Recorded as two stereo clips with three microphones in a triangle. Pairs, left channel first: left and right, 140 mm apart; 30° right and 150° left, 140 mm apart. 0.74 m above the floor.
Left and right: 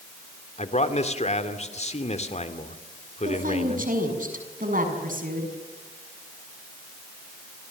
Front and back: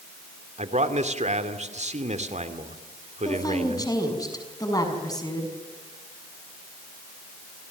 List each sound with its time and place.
0.6 s a man speaking: 120° left, 2.5 m
3.2 s a woman speaking: 95° right, 6.5 m